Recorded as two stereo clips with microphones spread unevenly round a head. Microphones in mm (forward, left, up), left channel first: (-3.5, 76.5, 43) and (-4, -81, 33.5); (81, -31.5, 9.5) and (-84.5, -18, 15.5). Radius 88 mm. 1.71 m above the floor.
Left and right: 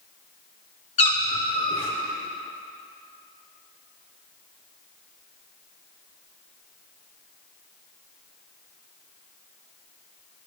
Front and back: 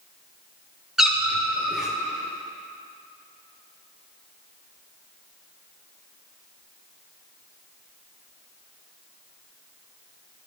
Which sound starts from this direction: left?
A cat meowing, at 1.0 s.